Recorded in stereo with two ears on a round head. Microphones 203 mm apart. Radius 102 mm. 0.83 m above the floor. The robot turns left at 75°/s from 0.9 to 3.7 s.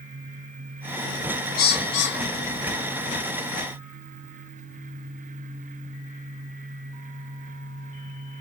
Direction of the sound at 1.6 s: 40° left (ahead or behind).